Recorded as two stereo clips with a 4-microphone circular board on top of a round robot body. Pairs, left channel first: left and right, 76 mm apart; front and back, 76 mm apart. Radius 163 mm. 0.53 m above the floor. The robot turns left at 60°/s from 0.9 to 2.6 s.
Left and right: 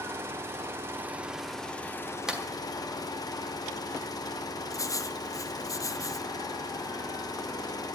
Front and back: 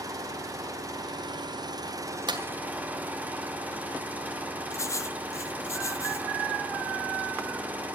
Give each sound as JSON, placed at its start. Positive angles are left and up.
{"t": 0.0, "sound": "an engine running", "azimuth_deg": -145, "distance_m": 1.8}
{"t": 2.3, "sound": "a clap", "azimuth_deg": -170, "distance_m": 1.8}
{"t": 4.7, "sound": "writing", "azimuth_deg": 50, "distance_m": 0.8}